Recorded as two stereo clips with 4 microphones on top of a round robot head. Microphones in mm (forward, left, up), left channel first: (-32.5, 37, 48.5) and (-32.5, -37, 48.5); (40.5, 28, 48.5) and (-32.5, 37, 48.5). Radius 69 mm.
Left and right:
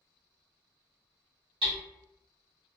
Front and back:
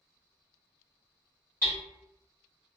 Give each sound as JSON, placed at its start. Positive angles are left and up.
{"t": 1.6, "sound": "hammering", "azimuth_deg": -75, "distance_m": 1.2}